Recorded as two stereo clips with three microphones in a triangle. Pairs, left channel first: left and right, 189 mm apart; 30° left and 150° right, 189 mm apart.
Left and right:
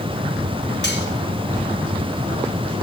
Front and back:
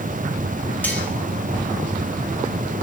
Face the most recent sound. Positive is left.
turn(degrees=110)